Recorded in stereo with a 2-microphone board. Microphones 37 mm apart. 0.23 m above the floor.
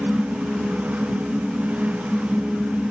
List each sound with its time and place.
Only background noise.